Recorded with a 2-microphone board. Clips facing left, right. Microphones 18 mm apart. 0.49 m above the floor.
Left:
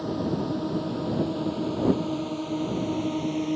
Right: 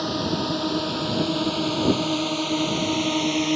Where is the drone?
85° right.